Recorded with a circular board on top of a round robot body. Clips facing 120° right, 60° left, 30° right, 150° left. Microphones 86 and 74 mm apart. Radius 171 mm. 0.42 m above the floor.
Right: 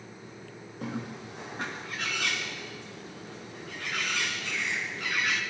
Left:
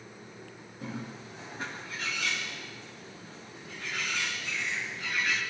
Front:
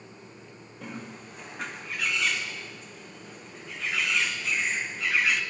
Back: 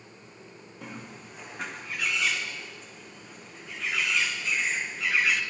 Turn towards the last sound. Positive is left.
turn(degrees=-120)